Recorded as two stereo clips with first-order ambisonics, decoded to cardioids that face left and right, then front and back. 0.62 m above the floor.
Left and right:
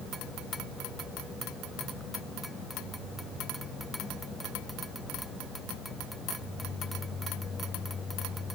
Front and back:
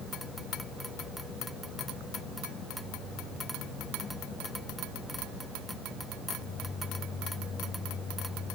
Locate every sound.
Only background noise.